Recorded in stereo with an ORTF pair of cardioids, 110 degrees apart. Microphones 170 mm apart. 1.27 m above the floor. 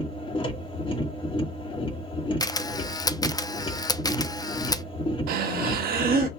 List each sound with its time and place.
0.0 s a machine running: 30° left, 1.8 m
2.4 s a camera shutter: 20° left, 0.6 m
5.3 s breathing: 60° right, 1.7 m